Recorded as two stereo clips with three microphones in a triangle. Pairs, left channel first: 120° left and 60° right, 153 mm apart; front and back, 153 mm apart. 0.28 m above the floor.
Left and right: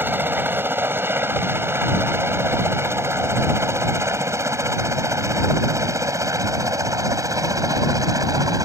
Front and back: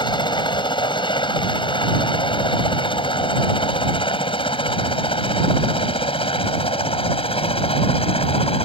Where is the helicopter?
5° left; by 8.7 s 5° right.